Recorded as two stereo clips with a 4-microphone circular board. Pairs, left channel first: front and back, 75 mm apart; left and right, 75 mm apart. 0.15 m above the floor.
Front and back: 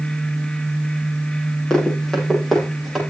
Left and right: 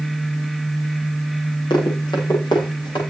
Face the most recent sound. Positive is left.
turn(degrees=90)